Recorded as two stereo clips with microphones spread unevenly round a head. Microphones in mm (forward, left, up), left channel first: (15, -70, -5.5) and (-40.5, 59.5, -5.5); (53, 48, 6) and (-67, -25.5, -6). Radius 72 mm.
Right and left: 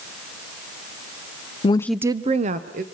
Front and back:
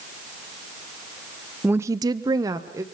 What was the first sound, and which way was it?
A woman speaking, 65° right.